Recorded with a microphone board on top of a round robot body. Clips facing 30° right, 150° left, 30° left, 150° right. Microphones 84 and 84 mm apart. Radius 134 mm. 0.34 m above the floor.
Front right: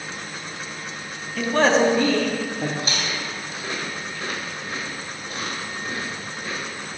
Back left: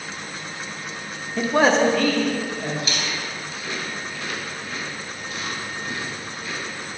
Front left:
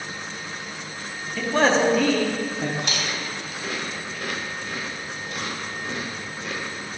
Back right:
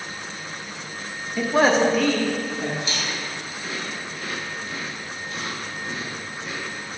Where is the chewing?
15° left, 1.8 m.